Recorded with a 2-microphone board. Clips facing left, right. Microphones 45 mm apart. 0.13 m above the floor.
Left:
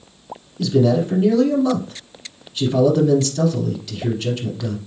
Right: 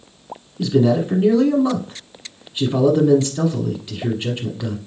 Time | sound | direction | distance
0.6 | a man speaking | 20° right (ahead or behind) | 1.2 m